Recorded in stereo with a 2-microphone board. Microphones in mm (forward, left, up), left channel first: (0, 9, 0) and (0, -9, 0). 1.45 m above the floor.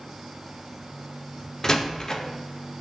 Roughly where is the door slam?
Left.